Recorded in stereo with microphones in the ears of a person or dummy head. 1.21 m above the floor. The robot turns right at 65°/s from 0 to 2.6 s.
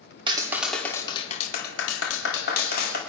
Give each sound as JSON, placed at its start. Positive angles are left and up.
{"t": 0.3, "sound": "a clap", "azimuth_deg": -30, "distance_m": 2.0}